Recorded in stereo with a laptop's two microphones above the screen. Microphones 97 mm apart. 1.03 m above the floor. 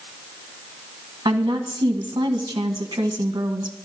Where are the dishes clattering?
No dishes clattering in this recording.